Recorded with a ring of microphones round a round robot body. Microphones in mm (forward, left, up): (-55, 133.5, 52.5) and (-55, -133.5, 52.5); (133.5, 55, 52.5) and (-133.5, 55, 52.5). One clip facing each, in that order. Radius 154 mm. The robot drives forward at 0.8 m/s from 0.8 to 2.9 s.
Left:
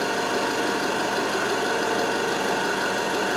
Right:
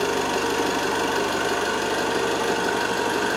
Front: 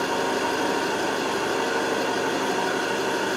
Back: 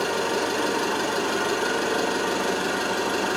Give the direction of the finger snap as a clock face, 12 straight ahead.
No finger snap in this recording.